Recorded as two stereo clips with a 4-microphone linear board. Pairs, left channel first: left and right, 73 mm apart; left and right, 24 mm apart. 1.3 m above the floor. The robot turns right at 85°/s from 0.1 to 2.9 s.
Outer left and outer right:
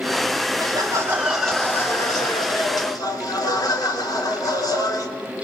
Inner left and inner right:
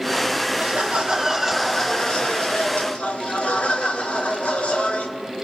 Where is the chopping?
I don't hear chopping.